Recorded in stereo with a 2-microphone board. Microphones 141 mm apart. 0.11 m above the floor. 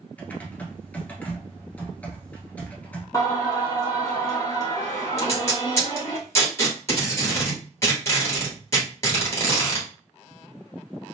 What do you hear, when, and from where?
0.2 s typing on a keyboard: 10° left (ahead or behind), 0.9 m
3.1 s singing: 25° left (ahead or behind), 1.6 m
5.2 s tape being pulled: 20° left (ahead or behind), 1.6 m